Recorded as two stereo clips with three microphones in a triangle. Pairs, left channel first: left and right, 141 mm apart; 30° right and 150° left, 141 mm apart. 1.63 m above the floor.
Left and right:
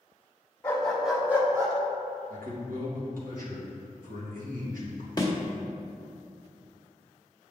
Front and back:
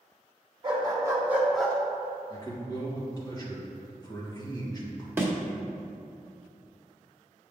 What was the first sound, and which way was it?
A dog barking, 155° left.